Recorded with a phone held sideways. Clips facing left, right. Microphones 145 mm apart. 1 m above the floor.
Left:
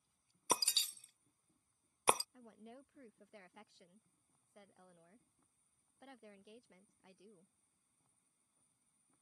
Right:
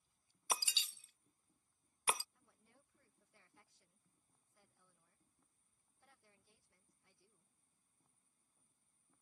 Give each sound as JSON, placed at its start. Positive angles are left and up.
{"t": 0.5, "sound": "breaking glass", "side_deg": 35}
{"t": 2.3, "sound": "a woman speaking", "side_deg": 70}